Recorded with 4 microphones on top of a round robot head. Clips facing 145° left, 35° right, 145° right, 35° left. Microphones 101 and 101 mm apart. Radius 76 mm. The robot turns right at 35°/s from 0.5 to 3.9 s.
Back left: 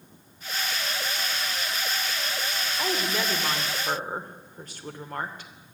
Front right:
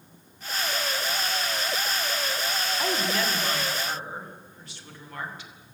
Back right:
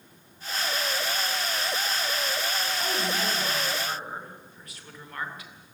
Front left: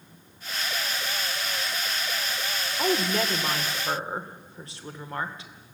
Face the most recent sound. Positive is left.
turn(degrees=100)